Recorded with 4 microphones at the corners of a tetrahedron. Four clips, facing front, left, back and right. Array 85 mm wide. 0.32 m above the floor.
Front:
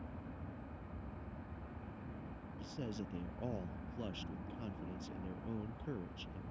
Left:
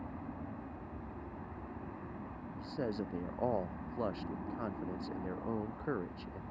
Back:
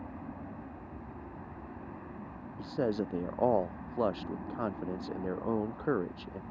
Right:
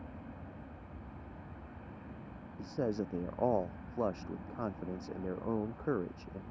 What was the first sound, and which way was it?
An aircraft, 150° left.